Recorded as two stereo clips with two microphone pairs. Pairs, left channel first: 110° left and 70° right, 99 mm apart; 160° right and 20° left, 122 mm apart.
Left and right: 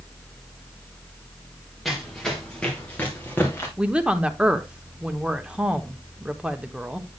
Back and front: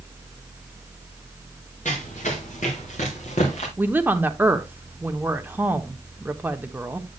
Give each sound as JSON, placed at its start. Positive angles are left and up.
{"t": 1.9, "sound": "running footsteps", "azimuth_deg": -160, "distance_m": 3.0}
{"t": 3.8, "sound": "a woman speaking", "azimuth_deg": -5, "distance_m": 0.7}